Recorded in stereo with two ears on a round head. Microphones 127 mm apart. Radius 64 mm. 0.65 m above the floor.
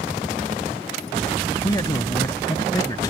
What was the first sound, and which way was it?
A man speaking, 25° left (ahead or behind).